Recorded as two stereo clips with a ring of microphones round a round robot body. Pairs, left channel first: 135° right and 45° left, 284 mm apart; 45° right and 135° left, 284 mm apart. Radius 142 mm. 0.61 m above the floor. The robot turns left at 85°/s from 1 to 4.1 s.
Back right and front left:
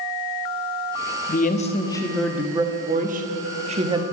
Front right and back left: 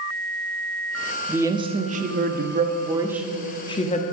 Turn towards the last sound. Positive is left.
turn(degrees=-25)